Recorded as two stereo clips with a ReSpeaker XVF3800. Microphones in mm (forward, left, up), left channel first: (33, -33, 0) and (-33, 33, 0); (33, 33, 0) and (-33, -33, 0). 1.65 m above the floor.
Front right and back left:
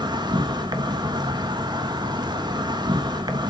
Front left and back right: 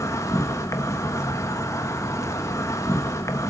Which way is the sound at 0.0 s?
100° left.